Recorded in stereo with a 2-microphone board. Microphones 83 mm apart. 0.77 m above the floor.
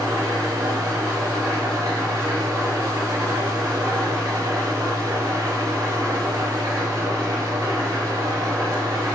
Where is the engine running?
45° right (ahead or behind), 5 m.